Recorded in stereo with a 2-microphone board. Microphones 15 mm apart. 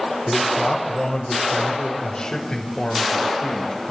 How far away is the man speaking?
About 5 m.